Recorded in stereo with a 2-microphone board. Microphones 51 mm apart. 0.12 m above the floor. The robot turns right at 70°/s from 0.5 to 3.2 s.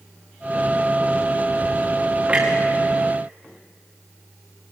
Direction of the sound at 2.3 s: 20° right (ahead or behind).